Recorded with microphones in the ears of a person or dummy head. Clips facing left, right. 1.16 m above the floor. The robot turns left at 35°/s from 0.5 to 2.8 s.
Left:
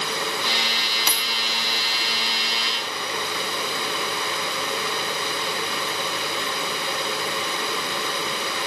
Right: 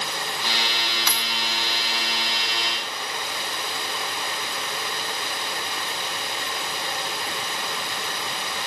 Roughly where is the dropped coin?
Left.